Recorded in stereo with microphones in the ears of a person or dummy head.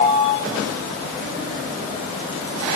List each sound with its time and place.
Only background noise.